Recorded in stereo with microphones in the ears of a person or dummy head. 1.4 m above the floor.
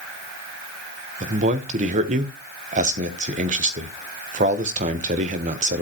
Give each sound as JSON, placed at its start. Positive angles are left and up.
{"t": 1.2, "sound": "a man speaking", "side_deg": -35, "distance_m": 1.0}